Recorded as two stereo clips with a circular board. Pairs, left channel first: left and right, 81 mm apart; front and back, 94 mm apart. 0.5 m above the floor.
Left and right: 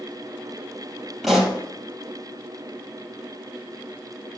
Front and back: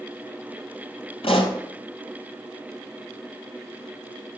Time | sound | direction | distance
1.2 | a pop | straight ahead | 3.5 m